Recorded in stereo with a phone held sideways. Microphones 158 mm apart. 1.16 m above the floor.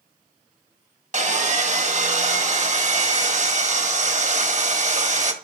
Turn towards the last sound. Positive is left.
turn(degrees=-50)  # may be behind; listen again after turning